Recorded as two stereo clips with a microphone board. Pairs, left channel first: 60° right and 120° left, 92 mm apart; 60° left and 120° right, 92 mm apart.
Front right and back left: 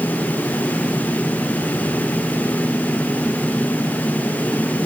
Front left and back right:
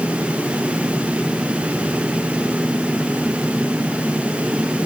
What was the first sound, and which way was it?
Only background noise.